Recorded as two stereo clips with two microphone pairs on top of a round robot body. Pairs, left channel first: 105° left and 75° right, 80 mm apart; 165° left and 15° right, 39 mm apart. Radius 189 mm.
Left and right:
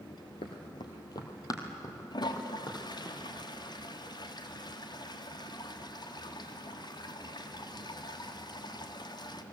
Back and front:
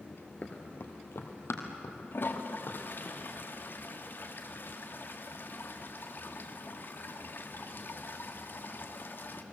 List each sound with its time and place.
0.4 s running footsteps: 130° left, 1.1 m; by 3.1 s 160° left, 4 m
2.1 s a toilet flushing: 130° left, 1.8 m